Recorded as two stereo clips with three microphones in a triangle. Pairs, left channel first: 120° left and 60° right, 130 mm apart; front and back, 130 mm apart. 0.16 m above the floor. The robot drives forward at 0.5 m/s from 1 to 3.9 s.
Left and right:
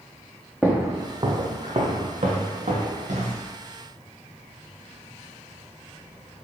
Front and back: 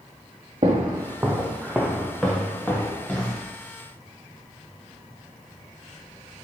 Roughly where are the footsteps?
Behind right.